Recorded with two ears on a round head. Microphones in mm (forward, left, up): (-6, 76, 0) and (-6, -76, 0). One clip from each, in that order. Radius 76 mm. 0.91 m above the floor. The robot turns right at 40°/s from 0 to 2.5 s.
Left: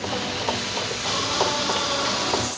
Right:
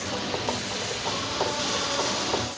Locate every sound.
Only background noise.